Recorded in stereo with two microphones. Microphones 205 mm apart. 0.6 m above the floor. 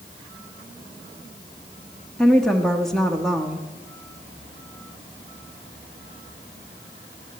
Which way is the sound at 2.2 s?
Centre (ahead or behind).